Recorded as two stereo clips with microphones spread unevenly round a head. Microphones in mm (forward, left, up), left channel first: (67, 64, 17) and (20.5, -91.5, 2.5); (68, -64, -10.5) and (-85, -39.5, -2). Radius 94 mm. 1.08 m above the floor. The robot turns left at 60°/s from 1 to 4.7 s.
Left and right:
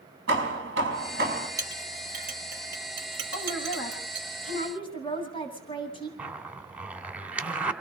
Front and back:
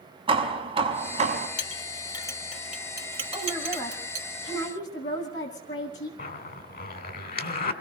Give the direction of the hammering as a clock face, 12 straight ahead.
5 o'clock.